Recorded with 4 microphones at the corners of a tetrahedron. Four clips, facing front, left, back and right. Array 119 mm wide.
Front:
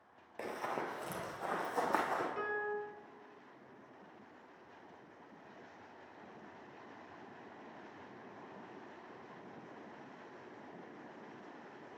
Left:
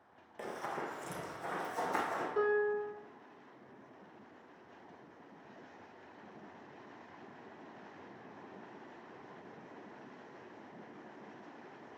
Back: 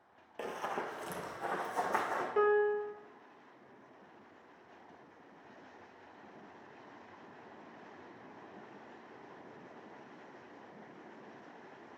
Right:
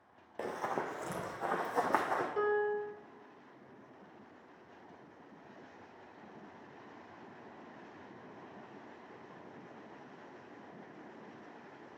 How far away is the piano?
About 0.6 m.